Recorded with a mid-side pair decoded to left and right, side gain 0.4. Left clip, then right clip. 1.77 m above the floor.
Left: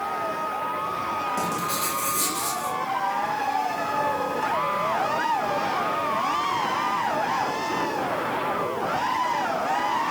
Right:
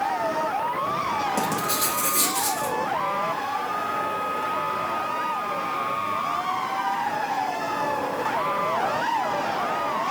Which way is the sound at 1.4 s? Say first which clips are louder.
Right 1 dB; 50° right.